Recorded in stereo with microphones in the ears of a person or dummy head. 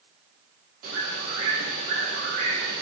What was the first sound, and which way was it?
A bird, 50° right (ahead or behind).